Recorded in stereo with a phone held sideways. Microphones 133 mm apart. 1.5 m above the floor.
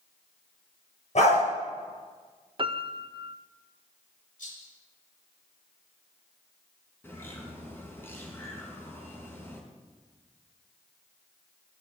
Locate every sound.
1.1 s a dog barking: 60° left (ahead or behind), 7.5 m
2.6 s a piano: 40° right (ahead or behind), 0.6 m
4.4 s a rattle: 85° left, 7.5 m
7.0 s a bird: 15° left (ahead or behind), 4 m